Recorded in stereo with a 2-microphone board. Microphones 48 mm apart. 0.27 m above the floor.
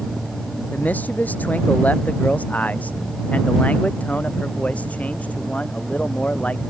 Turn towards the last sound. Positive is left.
turn(degrees=30)  # may be behind; listen again after turning